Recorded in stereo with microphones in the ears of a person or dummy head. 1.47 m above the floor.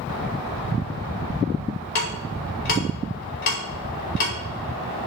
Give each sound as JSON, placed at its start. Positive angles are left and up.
{"t": 1.9, "sound": "ticking", "side_deg": 50, "distance_m": 4.5}